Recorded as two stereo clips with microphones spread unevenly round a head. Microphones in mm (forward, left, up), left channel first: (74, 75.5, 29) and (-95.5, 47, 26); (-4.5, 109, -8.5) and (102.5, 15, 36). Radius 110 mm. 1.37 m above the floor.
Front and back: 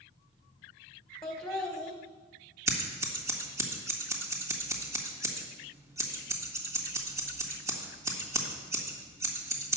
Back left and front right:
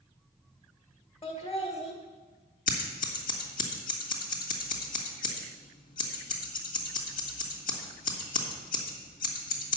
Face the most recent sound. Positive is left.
turn(degrees=120)